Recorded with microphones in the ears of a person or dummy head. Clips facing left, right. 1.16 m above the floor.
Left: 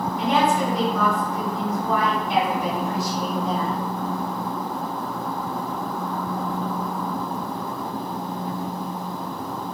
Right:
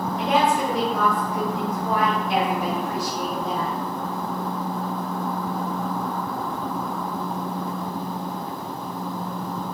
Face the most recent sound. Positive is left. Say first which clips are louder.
# even
turn(degrees=-55)  # may be behind; listen again after turning